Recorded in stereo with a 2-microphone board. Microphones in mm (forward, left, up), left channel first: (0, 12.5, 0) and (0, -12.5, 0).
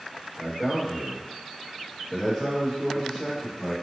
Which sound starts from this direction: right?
A man speaking, at 0.4 s.